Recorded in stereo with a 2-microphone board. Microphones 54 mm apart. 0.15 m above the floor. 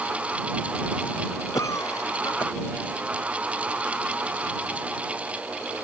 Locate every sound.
1.5 s a cough: 75° left (ahead or behind)